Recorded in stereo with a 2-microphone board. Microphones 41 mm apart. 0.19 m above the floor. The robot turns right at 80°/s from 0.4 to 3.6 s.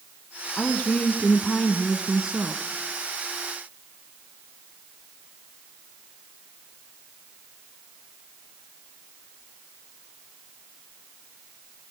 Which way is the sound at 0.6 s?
70° left.